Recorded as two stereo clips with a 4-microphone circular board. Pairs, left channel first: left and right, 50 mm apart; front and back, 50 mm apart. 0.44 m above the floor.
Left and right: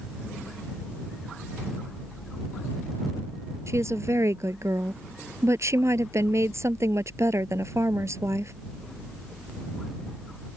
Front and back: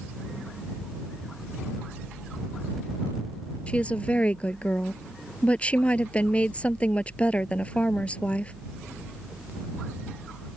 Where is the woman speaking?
65° right.